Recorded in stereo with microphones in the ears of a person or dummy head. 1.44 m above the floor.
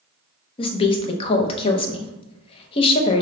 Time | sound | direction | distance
0.6 | a woman speaking | 30° left (ahead or behind) | 0.6 m